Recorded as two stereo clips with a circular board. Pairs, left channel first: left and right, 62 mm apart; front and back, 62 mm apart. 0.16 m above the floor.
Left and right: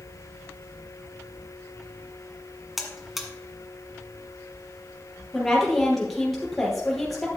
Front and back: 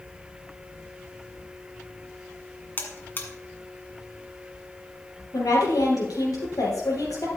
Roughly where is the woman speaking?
Ahead.